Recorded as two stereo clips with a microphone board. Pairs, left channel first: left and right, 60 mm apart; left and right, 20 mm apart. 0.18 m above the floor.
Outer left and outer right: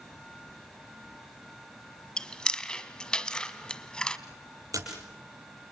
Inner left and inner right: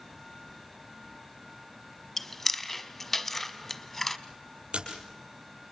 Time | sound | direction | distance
2.2 | chewing | 15° left (ahead or behind) | 1.2 m
4.7 | a splash | 75° right (ahead or behind) | 6 m